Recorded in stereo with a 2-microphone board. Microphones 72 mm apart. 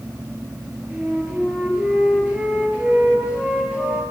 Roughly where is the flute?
Centre.